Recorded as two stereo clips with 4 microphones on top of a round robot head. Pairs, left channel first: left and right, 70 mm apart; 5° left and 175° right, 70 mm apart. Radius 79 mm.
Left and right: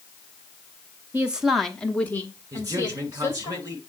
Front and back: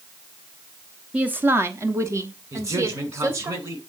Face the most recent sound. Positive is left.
turn(degrees=-140)